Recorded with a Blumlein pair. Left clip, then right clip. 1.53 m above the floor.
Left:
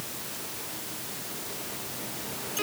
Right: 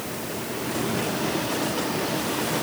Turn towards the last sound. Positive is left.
No sound to turn to.